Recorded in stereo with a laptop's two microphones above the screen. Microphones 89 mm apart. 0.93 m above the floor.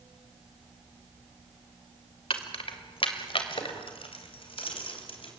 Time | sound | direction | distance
2.3 | keys jangling | 85° left | 1.9 m